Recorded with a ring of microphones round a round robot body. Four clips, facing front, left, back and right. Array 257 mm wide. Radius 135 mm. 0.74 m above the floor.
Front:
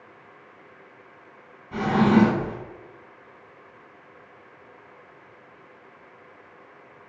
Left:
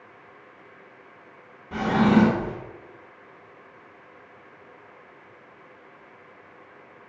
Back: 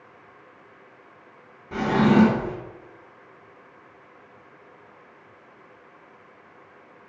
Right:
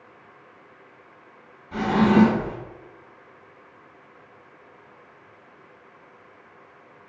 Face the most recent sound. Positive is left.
turn(degrees=145)